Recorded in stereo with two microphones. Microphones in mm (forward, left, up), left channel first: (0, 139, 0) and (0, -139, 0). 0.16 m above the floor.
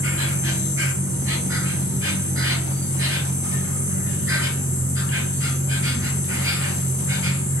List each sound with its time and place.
0.0 s an insect: 45° right (ahead or behind), 0.8 m